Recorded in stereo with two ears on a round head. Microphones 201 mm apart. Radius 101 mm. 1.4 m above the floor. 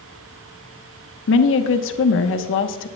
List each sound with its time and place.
1.3 s a woman speaking: 60° left (ahead or behind), 1.1 m